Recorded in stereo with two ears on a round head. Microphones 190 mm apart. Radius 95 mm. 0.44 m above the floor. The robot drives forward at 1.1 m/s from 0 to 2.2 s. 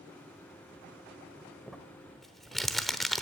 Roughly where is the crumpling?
Centre.